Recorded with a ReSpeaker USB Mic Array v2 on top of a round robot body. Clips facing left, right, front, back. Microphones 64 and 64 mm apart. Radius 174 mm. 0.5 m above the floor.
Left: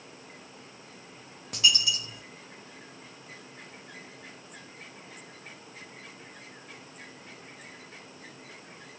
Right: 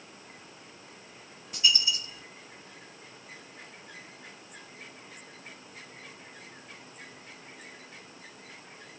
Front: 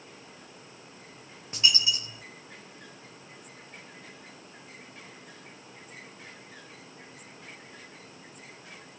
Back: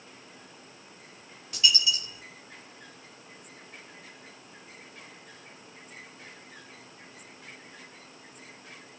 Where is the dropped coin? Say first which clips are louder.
Left 2 dB, even; 65° left, 0.7 m.